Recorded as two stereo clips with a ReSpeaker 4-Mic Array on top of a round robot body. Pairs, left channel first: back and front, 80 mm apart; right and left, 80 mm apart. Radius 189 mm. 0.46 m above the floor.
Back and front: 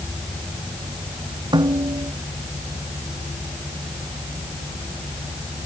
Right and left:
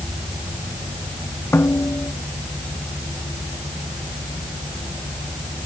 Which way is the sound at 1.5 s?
25° right.